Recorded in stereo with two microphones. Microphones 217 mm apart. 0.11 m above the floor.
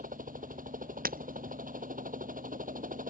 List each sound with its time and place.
0.0 s a helicopter: 40° right (ahead or behind)
1.1 s breaking glass: 40° right (ahead or behind)